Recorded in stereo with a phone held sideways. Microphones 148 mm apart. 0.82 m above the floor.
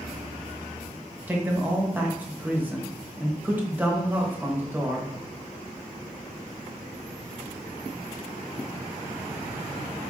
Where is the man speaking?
15° right (ahead or behind), 0.9 m.